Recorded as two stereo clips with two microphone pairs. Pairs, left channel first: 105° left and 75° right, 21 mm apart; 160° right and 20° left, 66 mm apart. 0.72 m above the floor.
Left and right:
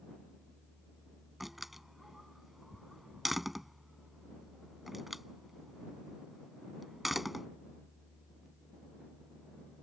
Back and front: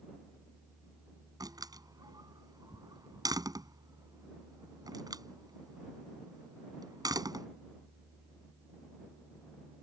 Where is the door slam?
10° left.